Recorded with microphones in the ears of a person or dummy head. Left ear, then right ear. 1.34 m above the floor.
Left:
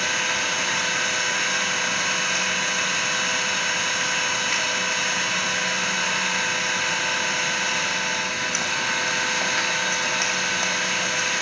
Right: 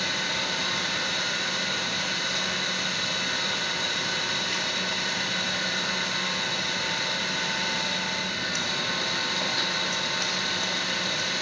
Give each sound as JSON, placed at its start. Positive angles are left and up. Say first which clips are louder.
{"t": 0.0, "sound": "an engine running", "louder": "left 4 dB", "side_deg": 45, "distance_m": 1.7}